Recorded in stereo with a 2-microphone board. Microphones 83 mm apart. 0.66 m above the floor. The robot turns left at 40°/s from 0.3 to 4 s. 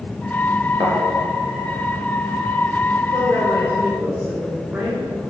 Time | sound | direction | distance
0.8 | a thud | 60° right (ahead or behind) | 3.5 m
3.1 | a woman speaking | 125° right | 2.5 m